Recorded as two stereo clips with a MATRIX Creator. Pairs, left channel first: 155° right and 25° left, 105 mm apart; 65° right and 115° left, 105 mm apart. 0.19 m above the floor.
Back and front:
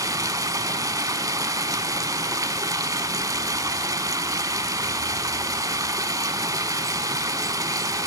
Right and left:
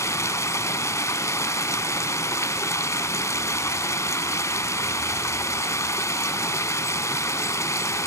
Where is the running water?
20° right, 0.8 m.